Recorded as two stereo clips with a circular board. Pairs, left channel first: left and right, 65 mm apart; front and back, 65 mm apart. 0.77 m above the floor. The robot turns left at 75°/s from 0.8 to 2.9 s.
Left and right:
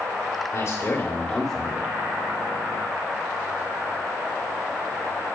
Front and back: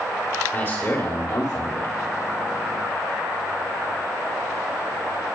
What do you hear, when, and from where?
0.5 s a man speaking: 55° left, 2 m; by 1.9 s 30° right, 2 m